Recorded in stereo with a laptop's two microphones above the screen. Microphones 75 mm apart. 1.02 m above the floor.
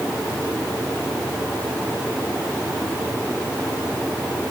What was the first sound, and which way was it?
Only background noise.